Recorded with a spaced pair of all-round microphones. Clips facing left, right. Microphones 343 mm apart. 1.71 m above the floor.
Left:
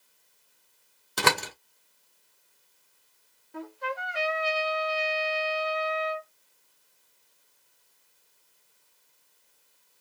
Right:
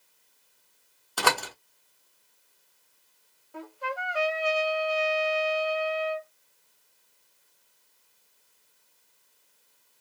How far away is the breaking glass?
No breaking glass in this recording.